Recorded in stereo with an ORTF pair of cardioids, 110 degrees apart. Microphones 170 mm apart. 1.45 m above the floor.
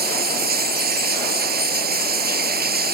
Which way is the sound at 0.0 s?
65° right.